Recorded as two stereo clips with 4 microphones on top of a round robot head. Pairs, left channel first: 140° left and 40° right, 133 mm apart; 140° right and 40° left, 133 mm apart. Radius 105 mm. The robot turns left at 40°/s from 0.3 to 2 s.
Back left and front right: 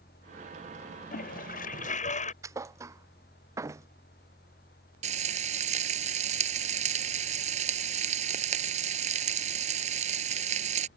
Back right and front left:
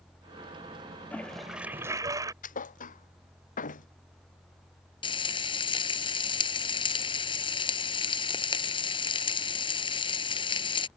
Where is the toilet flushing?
145° left; by 2.3 s 110° left.